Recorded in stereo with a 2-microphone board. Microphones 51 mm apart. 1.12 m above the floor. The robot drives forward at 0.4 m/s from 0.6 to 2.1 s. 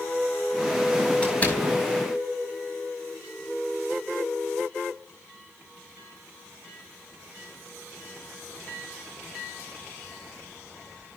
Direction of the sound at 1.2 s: 35° left (ahead or behind).